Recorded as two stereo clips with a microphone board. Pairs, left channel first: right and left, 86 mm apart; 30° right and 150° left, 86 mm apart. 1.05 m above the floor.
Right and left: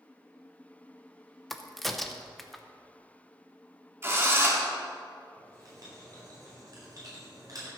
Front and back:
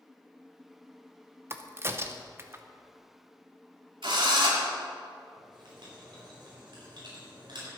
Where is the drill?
150° left, 2.5 m.